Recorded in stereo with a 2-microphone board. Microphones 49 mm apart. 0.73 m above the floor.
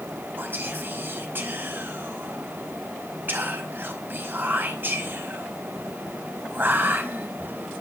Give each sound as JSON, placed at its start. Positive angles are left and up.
{"t": 0.4, "sound": "whispering", "side_deg": -45, "distance_m": 5.0}